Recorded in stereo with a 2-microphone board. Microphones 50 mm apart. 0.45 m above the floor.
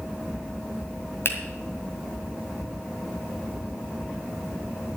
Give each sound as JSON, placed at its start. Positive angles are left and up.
{"t": 1.2, "sound": "a finger snap", "side_deg": 55, "distance_m": 1.8}